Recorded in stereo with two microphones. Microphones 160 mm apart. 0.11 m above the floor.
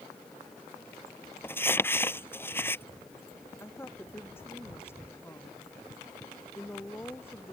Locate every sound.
1.4 s crumpling: 15° left (ahead or behind)
3.6 s a woman speaking: 15° left (ahead or behind)